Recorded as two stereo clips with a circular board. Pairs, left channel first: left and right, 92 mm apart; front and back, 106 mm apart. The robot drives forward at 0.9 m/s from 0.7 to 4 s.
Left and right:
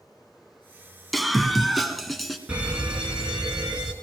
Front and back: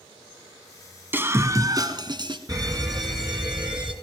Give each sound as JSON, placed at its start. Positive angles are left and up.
{"t": 1.1, "sound": "a scream", "azimuth_deg": 180, "distance_m": 1.5}
{"t": 2.5, "sound": "a fire alarm", "azimuth_deg": -160, "distance_m": 3.0}